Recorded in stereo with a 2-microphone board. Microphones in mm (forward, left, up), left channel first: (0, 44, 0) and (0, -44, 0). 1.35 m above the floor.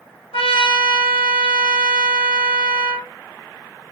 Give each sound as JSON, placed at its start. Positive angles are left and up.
{"t": 0.3, "sound": "a trumpet", "side_deg": 85, "distance_m": 1.3}